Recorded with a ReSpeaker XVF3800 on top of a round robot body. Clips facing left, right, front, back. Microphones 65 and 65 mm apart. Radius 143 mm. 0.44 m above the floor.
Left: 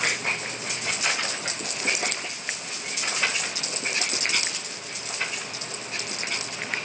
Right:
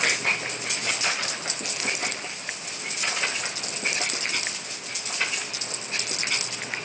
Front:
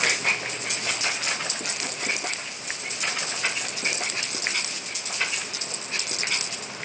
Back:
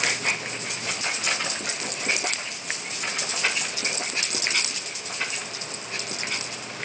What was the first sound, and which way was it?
Only background noise.